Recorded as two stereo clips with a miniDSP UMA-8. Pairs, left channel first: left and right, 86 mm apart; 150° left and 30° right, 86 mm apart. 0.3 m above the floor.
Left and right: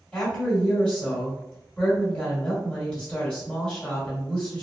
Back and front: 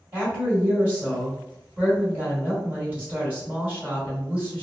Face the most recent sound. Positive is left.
turn(degrees=20)